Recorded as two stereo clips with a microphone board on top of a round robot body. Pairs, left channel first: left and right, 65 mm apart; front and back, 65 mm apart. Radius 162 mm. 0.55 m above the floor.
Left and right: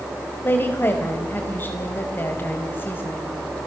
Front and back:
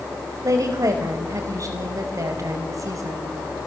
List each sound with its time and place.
0.4 s a woman speaking: 145° left, 4 m